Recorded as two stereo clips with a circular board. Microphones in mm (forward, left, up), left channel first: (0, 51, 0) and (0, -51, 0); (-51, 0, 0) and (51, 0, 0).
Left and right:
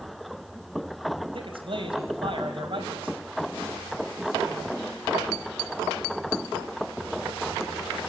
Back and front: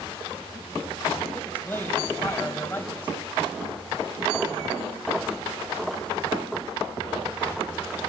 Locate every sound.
1.3 s a man speaking: 110° right, 3.5 m